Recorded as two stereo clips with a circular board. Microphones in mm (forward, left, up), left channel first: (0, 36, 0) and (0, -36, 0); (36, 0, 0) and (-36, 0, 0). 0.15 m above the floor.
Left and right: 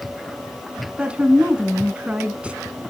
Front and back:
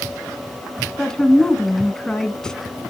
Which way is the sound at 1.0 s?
60° right.